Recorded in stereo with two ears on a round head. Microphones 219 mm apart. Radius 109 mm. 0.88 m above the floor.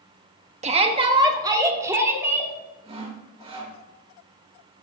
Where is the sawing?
25° right (ahead or behind), 1.7 m.